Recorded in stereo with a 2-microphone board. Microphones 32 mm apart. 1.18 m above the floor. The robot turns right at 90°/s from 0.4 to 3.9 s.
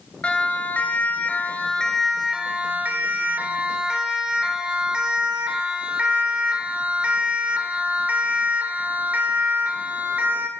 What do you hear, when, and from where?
0.2 s a siren: 40° left (ahead or behind), 5 m; by 10.5 s 75° right (ahead or behind), 3.5 m